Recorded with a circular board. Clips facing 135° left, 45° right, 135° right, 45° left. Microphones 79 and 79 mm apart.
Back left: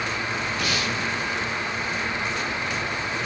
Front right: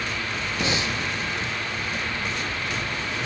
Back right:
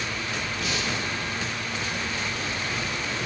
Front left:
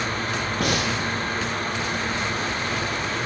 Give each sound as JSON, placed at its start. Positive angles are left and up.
{"t": 0.6, "sound": "breathing", "azimuth_deg": 15, "distance_m": 2.5}